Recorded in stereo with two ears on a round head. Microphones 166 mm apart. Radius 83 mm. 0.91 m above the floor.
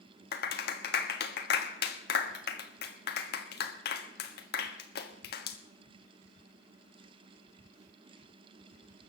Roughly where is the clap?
Left.